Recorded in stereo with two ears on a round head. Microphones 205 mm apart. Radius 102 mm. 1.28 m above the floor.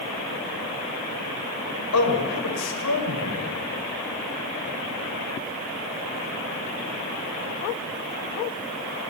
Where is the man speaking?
85° left, 7 m.